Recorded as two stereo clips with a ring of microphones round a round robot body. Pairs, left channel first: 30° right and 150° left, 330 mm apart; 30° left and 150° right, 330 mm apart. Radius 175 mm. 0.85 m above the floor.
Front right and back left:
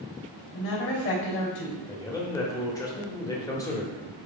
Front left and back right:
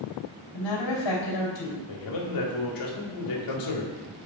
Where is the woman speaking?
25° left, 3.5 m.